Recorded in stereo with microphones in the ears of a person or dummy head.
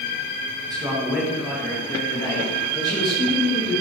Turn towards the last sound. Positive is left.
turn(degrees=35)  # may be behind; listen again after turning